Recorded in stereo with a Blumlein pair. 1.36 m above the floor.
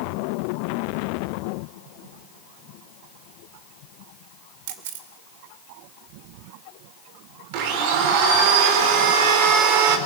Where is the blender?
45° right, 3.5 m.